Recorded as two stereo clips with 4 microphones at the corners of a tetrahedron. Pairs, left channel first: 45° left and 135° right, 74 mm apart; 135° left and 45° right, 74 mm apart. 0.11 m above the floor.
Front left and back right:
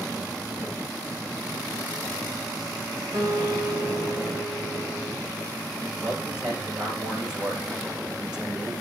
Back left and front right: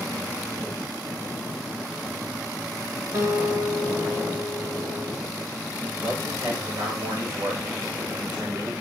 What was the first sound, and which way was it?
A guitar, 80° right.